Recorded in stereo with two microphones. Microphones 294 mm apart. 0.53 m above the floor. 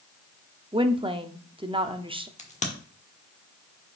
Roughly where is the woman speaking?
Centre.